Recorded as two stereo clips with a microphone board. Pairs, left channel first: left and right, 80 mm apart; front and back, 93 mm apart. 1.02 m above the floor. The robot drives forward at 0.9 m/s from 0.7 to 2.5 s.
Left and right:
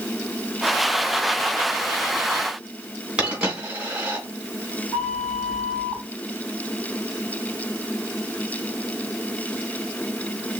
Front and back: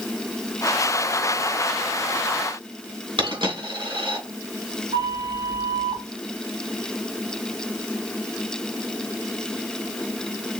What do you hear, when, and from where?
3.2 s a dropped coin: 165° right, 3 m
4.9 s a flute: straight behind, 3.5 m